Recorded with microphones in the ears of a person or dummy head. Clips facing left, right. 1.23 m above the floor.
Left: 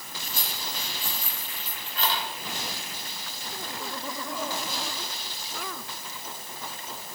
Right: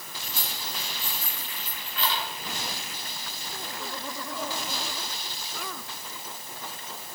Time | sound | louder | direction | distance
0.2 | keys jangling | left 1 dB | 40° left (ahead or behind) | 2 m